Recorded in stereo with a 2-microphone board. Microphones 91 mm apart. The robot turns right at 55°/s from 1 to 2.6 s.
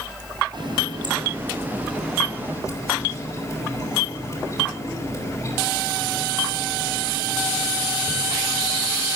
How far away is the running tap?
About 5 m.